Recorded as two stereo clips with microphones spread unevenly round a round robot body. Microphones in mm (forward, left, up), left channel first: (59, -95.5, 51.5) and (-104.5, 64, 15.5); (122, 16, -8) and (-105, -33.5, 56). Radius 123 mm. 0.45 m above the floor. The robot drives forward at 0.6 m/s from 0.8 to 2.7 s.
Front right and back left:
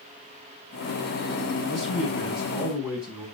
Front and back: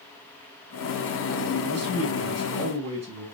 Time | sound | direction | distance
1.7 | a man speaking | 135° right | 5 m